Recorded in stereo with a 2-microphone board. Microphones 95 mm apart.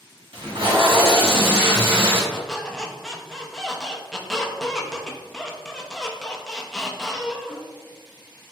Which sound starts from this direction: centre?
A squeak, at 2.3 s.